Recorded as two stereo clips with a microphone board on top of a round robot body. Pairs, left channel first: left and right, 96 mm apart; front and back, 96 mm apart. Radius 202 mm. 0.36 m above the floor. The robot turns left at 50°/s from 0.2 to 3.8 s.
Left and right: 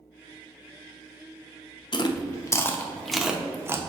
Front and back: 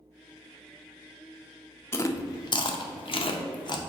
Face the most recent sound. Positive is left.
turn(degrees=-30)